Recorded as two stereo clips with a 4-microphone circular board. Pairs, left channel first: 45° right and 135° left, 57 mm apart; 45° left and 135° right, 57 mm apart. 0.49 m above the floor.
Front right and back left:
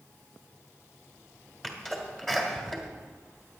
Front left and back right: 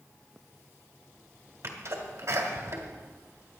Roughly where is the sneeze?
Behind right.